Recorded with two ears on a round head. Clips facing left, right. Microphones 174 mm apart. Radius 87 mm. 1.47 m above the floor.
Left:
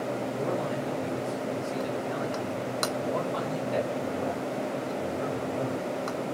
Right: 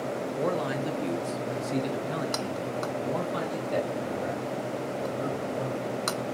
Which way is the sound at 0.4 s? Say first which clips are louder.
Right 4 dB; 80° right.